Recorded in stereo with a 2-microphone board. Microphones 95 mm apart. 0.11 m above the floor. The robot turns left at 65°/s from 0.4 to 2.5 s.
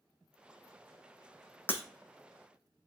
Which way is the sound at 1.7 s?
25° left (ahead or behind).